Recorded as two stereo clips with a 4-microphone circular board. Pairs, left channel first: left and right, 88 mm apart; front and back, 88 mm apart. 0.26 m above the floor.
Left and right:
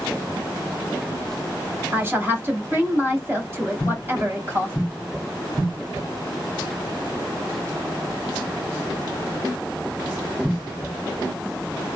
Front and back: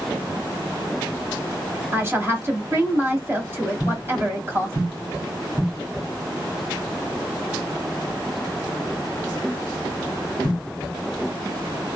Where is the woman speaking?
135° right, 1.5 m.